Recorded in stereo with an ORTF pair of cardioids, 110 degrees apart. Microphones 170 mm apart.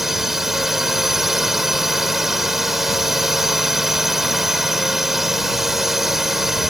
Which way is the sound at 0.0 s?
Straight ahead.